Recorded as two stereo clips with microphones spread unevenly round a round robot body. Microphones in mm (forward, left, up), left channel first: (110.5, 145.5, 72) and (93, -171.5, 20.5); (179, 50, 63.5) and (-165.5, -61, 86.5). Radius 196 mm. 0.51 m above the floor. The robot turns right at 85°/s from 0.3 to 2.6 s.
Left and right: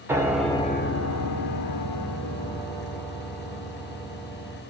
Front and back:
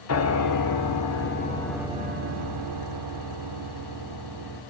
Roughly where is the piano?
Ahead.